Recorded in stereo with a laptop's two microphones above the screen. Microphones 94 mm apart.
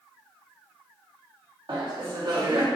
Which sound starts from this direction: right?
Laughter, at 1.7 s.